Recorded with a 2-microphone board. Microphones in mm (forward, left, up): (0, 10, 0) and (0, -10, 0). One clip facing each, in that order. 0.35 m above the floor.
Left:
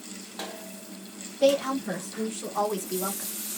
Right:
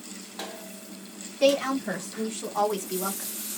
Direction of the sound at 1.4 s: 55° right (ahead or behind).